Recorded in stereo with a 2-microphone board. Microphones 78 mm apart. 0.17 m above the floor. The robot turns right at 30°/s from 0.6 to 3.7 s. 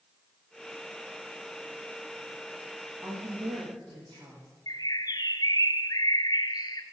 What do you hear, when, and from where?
3.0 s a woman speaking: 65° right (ahead or behind), 7 m; by 4.5 s 80° right, 7 m
4.7 s a bird: 60° left (ahead or behind), 0.8 m